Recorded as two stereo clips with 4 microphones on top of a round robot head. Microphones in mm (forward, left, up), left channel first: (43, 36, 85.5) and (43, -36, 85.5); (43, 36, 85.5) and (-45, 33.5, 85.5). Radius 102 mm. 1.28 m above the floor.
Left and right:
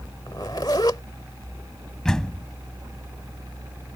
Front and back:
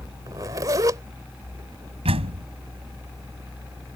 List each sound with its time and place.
0.3 s a zipper: 145° left
2.0 s a door slam: 175° left